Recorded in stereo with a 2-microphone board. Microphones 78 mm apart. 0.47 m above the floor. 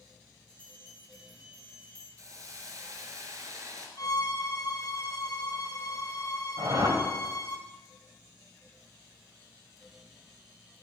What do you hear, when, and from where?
0.5 s a bell: 5° left (ahead or behind), 5.5 m
2.2 s a hiss: 45° right (ahead or behind), 2.0 m
4.0 s a violin: 50° left (ahead or behind), 1.1 m
6.6 s a whoosh: 55° right (ahead or behind), 2.0 m